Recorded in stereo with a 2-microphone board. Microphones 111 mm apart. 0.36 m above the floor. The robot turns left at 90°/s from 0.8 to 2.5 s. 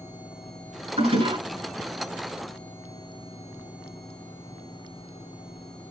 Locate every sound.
1.0 s a toilet flushing: 95° right, 3 m; by 1.4 s 130° right, 3 m